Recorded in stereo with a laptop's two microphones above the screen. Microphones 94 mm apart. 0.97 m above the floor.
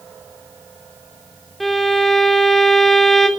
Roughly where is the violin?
Centre.